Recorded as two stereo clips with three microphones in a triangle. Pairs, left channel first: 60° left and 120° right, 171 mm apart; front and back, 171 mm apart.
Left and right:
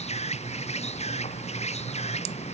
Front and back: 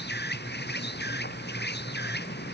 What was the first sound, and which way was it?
An insect, 10° left.